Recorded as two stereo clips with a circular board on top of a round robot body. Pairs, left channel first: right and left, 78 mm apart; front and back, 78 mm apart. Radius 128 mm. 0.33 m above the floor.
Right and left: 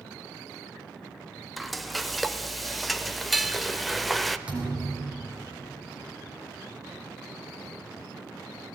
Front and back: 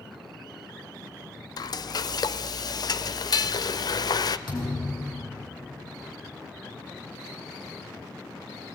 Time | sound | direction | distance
1.6 | frying | straight ahead | 0.8 m
4.5 | a thud | 15° left | 6 m